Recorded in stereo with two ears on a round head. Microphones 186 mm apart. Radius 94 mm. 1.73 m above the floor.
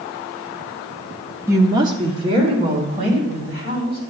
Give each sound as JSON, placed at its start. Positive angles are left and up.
{"t": 1.5, "sound": "a woman speaking", "side_deg": -15, "distance_m": 0.5}